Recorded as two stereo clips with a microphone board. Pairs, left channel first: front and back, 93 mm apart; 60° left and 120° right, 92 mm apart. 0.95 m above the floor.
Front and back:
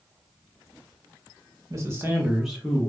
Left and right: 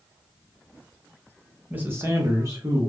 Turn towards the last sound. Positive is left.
turn(degrees=-80)